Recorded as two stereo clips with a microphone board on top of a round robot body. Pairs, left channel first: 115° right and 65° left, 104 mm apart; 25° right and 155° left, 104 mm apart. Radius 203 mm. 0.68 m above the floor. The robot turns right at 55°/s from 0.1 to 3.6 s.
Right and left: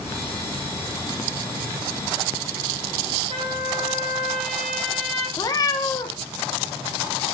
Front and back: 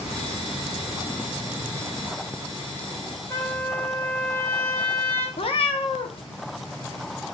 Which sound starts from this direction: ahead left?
A trumpet, at 3.3 s.